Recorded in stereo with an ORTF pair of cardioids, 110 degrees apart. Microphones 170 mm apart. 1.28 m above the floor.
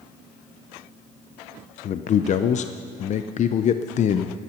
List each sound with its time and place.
1.8 s a man speaking: 45° left, 0.5 m